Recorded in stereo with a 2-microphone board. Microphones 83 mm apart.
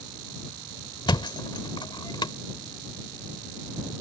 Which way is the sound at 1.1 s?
65° left (ahead or behind).